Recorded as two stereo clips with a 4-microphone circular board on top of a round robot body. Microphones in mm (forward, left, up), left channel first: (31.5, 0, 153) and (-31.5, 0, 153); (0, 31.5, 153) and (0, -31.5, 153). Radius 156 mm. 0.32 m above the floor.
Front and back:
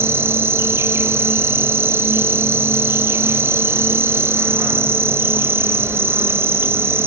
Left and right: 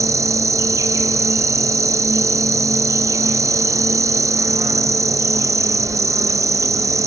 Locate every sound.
0.0 s an insect: 125° right, 0.8 m